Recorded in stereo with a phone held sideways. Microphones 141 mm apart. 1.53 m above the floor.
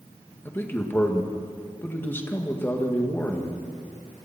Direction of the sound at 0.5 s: 15° left (ahead or behind).